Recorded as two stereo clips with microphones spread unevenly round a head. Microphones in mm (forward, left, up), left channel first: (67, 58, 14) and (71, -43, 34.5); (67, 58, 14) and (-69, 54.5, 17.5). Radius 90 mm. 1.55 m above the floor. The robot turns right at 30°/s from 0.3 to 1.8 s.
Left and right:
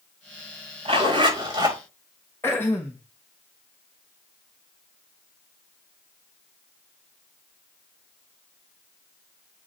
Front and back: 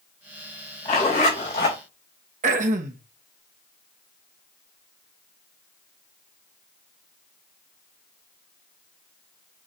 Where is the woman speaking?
I don't hear a woman speaking.